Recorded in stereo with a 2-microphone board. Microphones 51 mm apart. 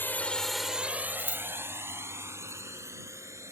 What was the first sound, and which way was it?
A drone, 45° left (ahead or behind).